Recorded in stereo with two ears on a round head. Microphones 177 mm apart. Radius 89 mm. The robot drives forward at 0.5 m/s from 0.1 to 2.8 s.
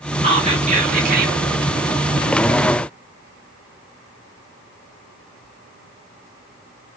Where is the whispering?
30° right (ahead or behind), 1.1 m; by 1.4 s 50° right (ahead or behind), 0.7 m.